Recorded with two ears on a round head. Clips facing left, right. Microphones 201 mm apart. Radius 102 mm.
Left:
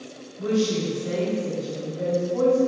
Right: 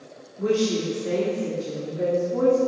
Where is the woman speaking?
40° right (ahead or behind), 1.9 m.